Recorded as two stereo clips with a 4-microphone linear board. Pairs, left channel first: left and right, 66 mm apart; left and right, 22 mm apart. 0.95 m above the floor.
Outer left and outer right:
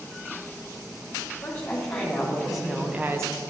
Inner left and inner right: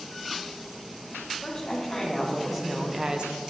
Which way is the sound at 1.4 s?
15° left (ahead or behind).